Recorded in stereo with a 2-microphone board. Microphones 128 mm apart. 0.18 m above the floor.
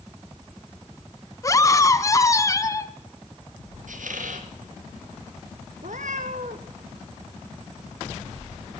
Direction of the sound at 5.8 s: 75° right (ahead or behind).